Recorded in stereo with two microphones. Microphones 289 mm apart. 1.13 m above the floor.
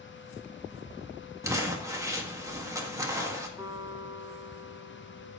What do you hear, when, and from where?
1.4 s crumpling: 10° right (ahead or behind), 1.6 m
3.6 s a guitar: 10° right (ahead or behind), 1.9 m